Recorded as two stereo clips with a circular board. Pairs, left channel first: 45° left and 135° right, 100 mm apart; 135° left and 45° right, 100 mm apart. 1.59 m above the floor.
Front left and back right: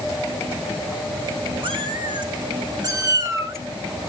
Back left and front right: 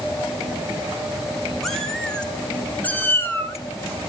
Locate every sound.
1.6 s a cat meowing: 135° right, 2 m; by 4.1 s 155° left, 1.3 m